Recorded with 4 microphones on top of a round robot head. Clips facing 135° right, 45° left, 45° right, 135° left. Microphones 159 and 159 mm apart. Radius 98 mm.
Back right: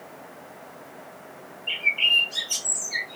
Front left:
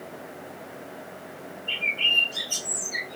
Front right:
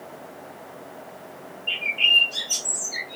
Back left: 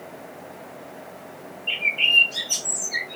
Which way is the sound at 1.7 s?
145° right.